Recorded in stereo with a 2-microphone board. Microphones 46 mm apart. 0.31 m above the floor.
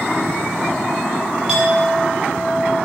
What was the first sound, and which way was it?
A clink, 15° right (ahead or behind).